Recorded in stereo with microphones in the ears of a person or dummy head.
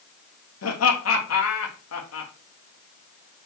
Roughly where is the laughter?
Left.